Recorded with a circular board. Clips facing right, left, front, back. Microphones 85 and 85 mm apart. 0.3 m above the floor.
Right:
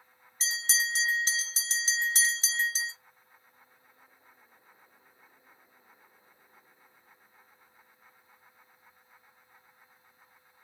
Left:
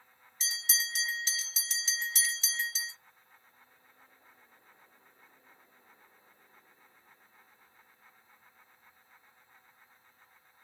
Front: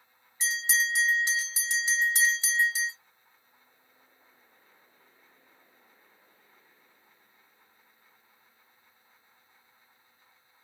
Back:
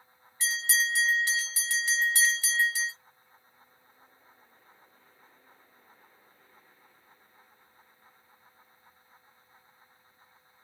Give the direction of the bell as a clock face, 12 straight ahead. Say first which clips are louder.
Right 6 dB, front 1 dB; 2 o'clock.